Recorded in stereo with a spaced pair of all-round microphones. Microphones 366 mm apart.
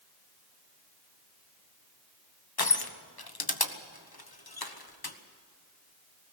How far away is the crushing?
About 1.3 m.